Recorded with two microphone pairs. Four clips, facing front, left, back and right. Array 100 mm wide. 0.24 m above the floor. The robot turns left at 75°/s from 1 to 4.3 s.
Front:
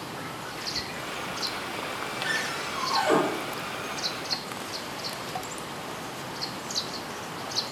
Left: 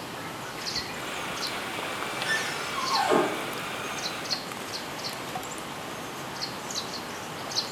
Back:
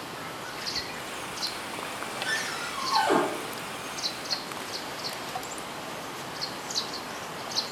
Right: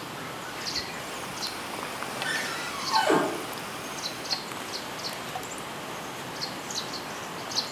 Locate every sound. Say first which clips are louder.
2.2 s a cupboard door: left 1 dB, front 2 dB; 25° right, 4.5 m; by 3.2 s 95° right, 4.5 m